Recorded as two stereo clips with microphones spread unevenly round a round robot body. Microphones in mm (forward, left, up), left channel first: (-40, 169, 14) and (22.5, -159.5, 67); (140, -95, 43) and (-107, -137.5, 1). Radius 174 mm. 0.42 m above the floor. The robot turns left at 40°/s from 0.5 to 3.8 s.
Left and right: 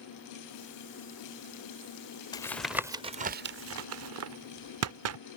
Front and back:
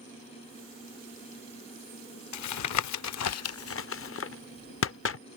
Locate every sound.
2.3 s tapping: 30° left; by 5.2 s 30° right